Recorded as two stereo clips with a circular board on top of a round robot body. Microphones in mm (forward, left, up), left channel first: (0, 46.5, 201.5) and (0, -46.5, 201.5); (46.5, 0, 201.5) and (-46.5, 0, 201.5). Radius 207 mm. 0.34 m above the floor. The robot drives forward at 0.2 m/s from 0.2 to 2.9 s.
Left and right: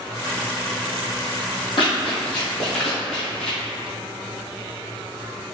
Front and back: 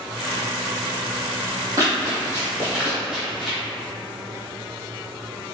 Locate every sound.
1.8 s running footsteps: 125° left, 1.1 m; by 3.6 s 85° left, 1.2 m